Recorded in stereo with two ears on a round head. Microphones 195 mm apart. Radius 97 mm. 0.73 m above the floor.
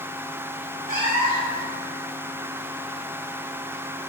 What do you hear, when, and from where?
0.9 s a cat meowing: 40° right (ahead or behind), 1.3 m